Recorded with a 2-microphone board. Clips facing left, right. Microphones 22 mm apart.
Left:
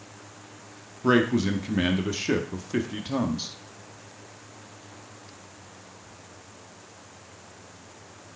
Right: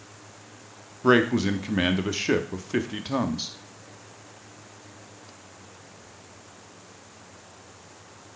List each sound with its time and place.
1.0 s a man speaking: 20° right (ahead or behind), 0.7 m